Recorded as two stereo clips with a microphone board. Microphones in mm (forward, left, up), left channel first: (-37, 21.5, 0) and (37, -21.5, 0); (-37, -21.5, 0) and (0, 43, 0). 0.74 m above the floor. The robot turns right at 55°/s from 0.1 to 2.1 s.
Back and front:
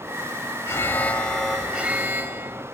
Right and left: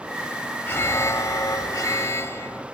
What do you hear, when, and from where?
0.7 s an alarm: 165° right, 1.6 m; by 2.6 s 85° right, 1.6 m